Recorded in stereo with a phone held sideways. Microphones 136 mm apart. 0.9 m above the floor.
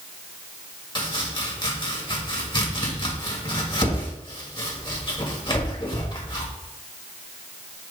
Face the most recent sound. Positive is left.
turn(degrees=35)  # may be behind; listen again after turning